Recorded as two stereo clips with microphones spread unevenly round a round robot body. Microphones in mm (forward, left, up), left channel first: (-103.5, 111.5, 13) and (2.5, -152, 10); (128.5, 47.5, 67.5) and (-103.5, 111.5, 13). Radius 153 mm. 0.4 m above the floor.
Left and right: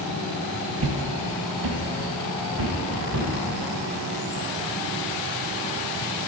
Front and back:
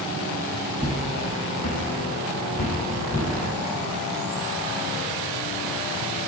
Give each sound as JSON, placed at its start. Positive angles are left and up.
{"t": 0.8, "sound": "footsteps", "azimuth_deg": -105, "distance_m": 0.6}